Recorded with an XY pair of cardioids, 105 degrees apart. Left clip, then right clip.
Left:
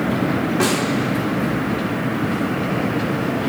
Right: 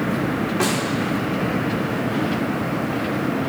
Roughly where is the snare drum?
Ahead.